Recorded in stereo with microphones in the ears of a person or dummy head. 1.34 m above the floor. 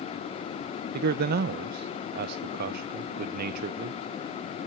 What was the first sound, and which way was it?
A man speaking, 55° right (ahead or behind).